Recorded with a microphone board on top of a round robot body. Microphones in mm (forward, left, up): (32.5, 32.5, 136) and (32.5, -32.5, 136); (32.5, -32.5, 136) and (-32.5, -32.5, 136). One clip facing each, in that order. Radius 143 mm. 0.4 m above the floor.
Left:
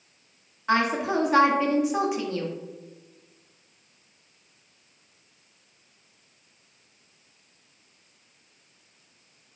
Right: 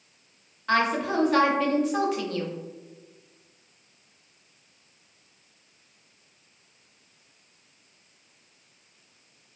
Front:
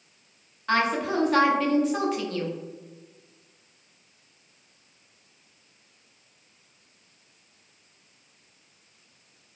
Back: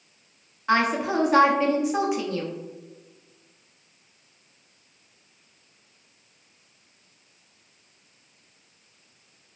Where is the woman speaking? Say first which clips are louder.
Even, back 2 dB; 135° left, 0.8 m.